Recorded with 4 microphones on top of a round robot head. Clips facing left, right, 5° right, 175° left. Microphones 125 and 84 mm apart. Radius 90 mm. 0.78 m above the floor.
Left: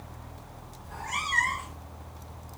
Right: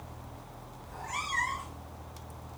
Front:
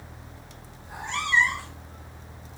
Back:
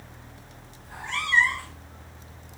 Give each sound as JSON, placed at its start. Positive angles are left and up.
{"t": 0.8, "sound": "a cat meowing", "azimuth_deg": 65, "distance_m": 1.2}